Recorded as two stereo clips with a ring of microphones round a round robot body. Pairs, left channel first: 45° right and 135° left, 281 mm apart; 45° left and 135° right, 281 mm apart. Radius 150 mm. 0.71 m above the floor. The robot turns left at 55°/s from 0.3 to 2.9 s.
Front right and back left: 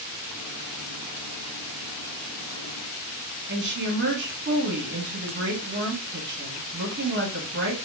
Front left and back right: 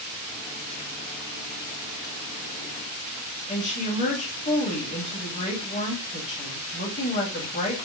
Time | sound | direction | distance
3.5 | a woman speaking | 100° left | 1.4 m